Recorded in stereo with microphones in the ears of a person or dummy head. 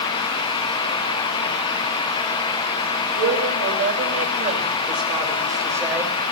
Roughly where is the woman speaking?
Right.